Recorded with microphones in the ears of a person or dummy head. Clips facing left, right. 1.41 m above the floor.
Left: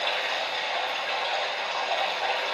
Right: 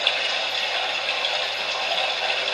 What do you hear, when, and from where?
0.0 s running water: 40° right (ahead or behind), 2.5 m